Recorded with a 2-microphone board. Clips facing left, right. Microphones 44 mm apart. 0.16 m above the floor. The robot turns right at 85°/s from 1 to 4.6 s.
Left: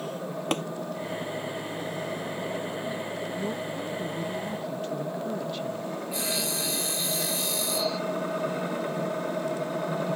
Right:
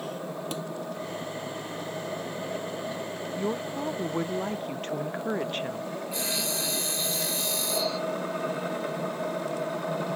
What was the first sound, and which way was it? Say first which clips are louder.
Tapping: left 9 dB; 55° left (ahead or behind).